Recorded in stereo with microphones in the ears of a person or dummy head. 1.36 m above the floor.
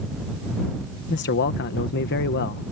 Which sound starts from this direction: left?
A man speaking, at 1.1 s.